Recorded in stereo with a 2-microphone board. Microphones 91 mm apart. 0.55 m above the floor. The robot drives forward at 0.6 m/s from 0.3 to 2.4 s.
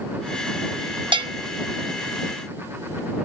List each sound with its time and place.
1.1 s a bell: 60° right (ahead or behind), 0.6 m